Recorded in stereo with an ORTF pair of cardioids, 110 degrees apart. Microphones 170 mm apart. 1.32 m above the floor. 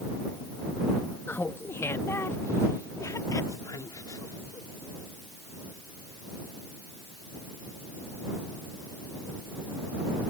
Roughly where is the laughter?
Ahead.